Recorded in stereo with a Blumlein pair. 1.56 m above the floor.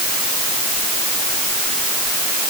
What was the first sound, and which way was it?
Only background noise.